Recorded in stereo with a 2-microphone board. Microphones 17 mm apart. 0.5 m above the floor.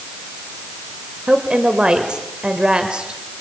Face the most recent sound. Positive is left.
turn(degrees=-55)  # may be behind; listen again after turning